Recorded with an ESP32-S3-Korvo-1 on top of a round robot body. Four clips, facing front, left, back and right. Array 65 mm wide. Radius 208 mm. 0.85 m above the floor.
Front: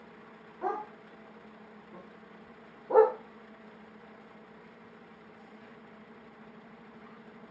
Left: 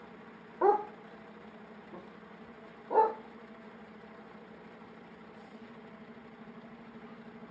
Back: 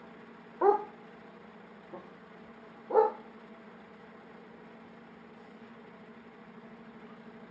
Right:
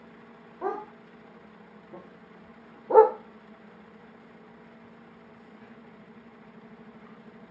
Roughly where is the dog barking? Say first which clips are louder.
Left 6 dB, back 9 dB; behind left.